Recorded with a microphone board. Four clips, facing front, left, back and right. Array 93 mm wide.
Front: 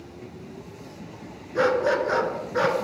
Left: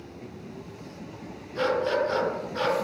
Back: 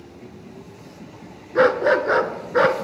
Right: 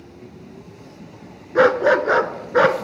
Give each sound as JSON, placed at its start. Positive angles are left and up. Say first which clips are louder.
{"t": 1.6, "sound": "a dog barking", "louder": "right 10 dB, back 5 dB", "azimuth_deg": -115, "distance_m": 0.8}